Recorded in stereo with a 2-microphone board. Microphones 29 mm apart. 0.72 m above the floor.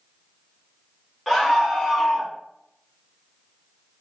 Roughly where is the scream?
Centre.